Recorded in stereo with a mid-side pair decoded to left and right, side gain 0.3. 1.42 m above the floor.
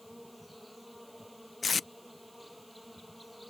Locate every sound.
0.0 s an insect: straight ahead
1.6 s tape being pulled: 50° left